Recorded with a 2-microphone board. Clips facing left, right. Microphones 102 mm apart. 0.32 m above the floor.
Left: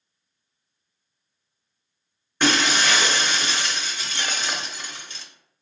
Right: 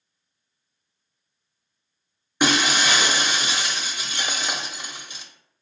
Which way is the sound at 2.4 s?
15° right (ahead or behind).